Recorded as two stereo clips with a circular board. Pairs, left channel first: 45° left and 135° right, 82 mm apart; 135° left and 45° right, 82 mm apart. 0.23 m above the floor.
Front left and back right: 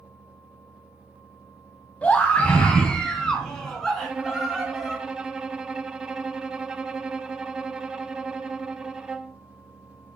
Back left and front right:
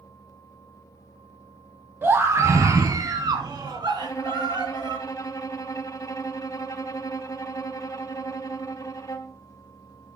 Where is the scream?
10° right, 1.6 m; by 5.0 s 40° right, 4 m.